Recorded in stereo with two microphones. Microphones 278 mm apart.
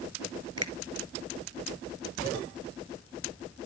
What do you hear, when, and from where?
0.6 s a finger snap: 60° right (ahead or behind), 2 m